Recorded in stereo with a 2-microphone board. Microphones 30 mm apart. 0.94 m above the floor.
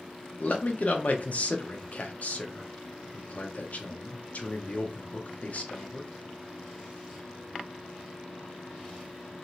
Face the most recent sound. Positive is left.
turn(degrees=55)  # may be behind; listen again after turning